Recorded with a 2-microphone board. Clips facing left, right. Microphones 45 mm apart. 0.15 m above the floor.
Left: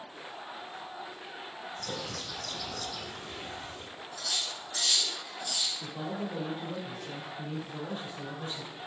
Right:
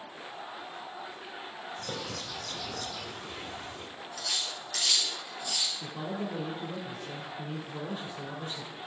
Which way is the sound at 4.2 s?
65° right (ahead or behind).